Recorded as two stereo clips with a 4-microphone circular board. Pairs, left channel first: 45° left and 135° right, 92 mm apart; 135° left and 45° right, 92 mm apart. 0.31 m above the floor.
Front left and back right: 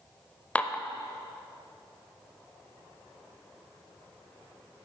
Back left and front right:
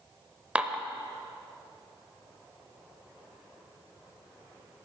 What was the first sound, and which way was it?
Dishes clattering, 5° left.